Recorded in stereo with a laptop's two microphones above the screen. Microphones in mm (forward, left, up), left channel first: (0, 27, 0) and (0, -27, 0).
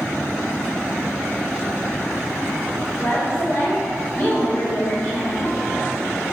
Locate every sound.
3.0 s a woman speaking: 30° left (ahead or behind), 4.5 m